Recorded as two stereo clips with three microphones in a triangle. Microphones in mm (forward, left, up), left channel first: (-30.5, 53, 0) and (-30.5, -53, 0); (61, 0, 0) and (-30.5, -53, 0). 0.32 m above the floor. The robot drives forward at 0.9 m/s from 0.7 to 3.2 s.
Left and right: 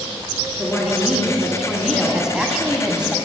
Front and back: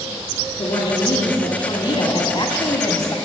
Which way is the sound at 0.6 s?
5° right.